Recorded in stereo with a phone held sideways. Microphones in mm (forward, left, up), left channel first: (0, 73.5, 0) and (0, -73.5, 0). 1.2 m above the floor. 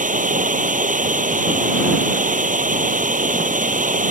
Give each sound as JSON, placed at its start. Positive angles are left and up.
{"t": 0.0, "sound": "running water", "side_deg": -60}